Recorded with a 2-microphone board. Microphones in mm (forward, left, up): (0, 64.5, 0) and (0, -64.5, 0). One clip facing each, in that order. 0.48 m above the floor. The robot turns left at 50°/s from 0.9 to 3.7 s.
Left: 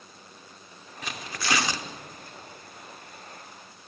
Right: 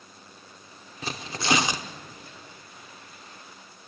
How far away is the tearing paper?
About 1.0 m.